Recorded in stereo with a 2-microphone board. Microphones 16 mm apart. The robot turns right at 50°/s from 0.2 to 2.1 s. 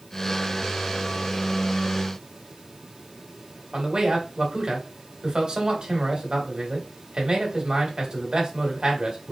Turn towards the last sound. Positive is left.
turn(degrees=-55)  # may be behind; listen again after turning